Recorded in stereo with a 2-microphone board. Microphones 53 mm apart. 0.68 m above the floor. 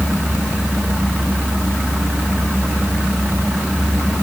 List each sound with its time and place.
Only background noise.